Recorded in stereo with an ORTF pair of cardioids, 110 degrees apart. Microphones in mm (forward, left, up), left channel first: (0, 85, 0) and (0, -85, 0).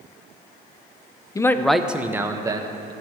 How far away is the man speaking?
About 0.6 m.